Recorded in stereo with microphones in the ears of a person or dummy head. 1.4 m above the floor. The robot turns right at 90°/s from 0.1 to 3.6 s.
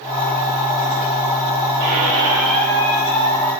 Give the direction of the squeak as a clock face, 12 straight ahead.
2 o'clock.